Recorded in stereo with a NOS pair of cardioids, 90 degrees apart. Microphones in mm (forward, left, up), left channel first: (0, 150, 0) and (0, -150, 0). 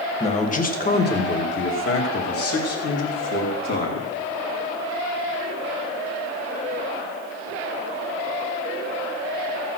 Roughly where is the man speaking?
Ahead.